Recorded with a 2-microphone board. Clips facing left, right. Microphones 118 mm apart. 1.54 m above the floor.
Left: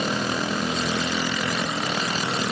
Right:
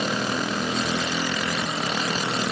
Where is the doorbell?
I don't hear a doorbell.